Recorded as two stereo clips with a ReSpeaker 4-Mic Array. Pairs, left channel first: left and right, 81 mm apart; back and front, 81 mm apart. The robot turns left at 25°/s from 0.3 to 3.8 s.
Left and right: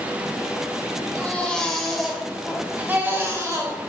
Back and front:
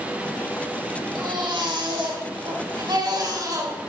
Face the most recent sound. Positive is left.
turn(degrees=-45)